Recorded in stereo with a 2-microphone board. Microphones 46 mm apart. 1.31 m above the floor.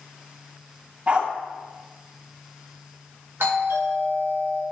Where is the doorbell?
60° right (ahead or behind), 2.5 m.